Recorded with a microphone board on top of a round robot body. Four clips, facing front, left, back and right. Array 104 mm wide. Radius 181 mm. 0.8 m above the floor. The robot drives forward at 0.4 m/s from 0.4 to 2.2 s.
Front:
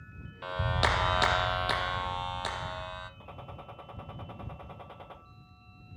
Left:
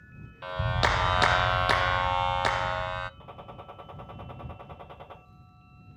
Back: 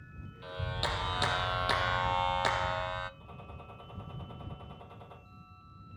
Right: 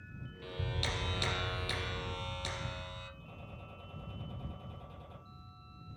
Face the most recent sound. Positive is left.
turn(degrees=50)